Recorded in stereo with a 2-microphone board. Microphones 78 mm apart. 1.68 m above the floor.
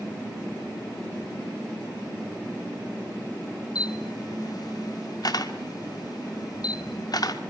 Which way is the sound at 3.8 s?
55° left (ahead or behind).